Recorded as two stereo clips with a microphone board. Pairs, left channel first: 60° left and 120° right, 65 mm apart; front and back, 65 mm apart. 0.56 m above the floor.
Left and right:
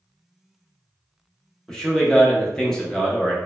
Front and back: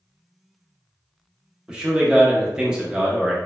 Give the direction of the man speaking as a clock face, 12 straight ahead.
8 o'clock.